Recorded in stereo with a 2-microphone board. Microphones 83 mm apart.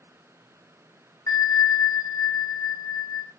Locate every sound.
1.3 s a bell: 45° left (ahead or behind), 0.7 m